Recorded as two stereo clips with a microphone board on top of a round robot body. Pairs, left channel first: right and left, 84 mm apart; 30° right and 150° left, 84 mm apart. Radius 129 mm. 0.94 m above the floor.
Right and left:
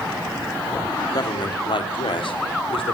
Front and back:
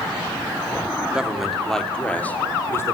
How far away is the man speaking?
About 3.5 m.